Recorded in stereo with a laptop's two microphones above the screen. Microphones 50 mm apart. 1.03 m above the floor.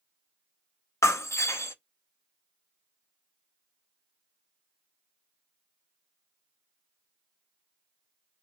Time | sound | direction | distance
1.0 | breaking glass | 65° left (ahead or behind) | 0.6 m